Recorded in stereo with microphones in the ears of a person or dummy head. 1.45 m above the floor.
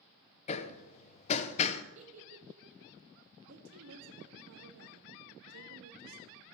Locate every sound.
0.5 s hammering: 35° left (ahead or behind), 0.8 m
1.9 s a giggle: 40° right (ahead or behind), 1.9 m
3.5 s a woman speaking: 90° right, 2.5 m